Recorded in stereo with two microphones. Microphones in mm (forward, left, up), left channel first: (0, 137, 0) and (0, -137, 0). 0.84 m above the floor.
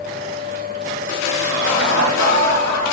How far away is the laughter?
About 1.4 m.